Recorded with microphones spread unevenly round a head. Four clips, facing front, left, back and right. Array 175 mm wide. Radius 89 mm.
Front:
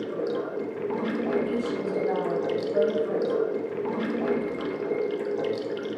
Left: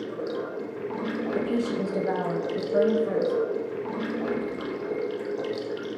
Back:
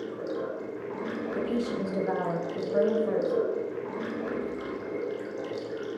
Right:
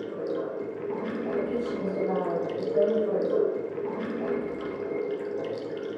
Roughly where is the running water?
Ahead.